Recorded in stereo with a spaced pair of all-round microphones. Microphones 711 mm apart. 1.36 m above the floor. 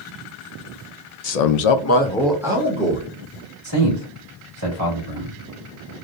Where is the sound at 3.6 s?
40° right (ahead or behind), 2 m.